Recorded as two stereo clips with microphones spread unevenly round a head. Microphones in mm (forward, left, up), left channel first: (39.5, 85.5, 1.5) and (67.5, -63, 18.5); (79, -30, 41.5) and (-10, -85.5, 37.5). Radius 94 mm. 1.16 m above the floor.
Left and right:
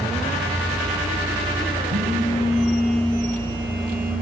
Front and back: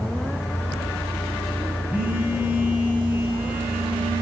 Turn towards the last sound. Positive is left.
turn(degrees=-75)